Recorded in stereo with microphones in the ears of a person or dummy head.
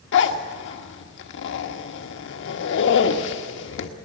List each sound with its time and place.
0.1 s a zipper: 65° left (ahead or behind), 1.4 m